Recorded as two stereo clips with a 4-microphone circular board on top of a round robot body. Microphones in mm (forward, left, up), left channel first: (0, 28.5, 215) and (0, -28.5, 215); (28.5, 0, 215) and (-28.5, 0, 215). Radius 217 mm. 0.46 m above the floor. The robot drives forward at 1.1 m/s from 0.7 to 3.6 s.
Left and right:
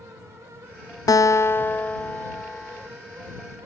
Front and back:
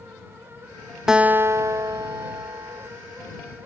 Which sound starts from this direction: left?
A guitar, at 1.1 s.